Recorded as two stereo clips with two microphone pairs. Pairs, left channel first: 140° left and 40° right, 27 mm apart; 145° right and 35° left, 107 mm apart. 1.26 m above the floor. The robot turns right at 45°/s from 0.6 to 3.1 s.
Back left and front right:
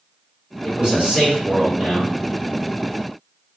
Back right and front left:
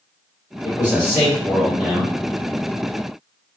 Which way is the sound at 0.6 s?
105° right.